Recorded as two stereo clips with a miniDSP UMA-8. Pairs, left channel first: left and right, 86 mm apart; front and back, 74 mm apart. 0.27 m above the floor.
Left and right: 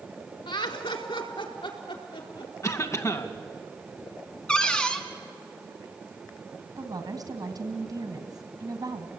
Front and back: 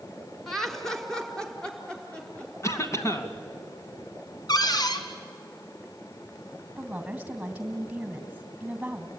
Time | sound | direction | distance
0.5 | laughter | 85° left | 3 m
2.6 | a cough | 40° left | 2.5 m
4.5 | a cupboard door | 10° left | 2 m
6.8 | a woman speaking | 105° right | 2.5 m